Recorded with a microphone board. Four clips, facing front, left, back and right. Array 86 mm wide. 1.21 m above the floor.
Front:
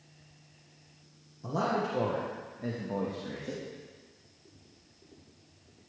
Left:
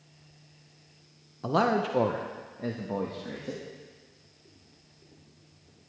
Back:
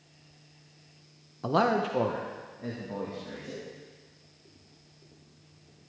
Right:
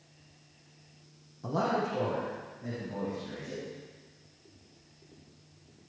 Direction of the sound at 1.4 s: 150° left.